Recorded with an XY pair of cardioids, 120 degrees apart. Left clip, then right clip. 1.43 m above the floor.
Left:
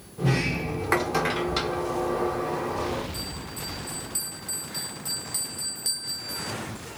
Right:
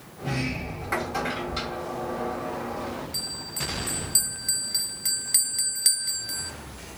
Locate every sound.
0.2 s a sliding door: 50° left, 0.8 m
3.1 s a bell: 50° right, 0.6 m